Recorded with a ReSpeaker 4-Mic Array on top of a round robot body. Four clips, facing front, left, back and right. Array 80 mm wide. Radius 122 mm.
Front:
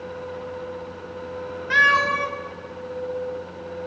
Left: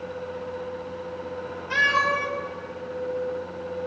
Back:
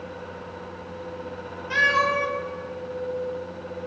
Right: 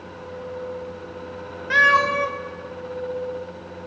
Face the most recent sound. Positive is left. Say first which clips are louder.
# right 5 dB, front 3 dB
turn(degrees=-50)